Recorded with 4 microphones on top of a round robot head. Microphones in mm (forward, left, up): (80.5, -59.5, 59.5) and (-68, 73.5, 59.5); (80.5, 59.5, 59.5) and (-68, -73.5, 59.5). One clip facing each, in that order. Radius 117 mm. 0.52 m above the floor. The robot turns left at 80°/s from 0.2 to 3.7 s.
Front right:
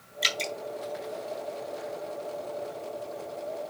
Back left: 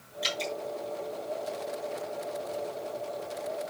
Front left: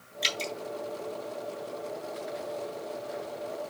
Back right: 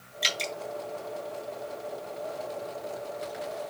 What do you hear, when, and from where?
0.2 s dripping: 50° right, 2.5 m; by 0.5 s 75° right, 2.5 m